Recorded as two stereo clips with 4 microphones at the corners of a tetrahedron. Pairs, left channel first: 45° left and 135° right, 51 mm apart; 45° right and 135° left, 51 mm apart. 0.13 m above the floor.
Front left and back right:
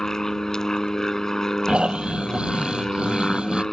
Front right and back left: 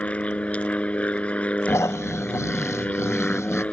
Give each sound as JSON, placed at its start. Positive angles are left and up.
{"t": 0.0, "sound": "an aircraft", "azimuth_deg": -25}
{"t": 1.7, "sound": "snoring", "azimuth_deg": -65}